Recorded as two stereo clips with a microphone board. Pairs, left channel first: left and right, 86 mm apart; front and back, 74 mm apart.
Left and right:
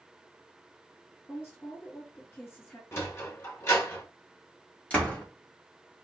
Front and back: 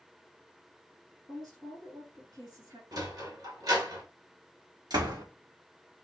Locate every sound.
1.3 s a woman speaking: 150° left, 2.5 m
2.9 s a sliding door: 150° left, 1.6 m
4.9 s a door slam: 165° left, 1.9 m